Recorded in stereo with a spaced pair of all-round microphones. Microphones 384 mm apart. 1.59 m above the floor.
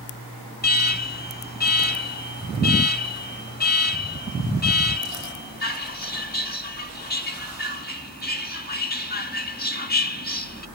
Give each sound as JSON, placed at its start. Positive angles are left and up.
{"t": 0.6, "sound": "an alarm", "side_deg": 25, "distance_m": 1.5}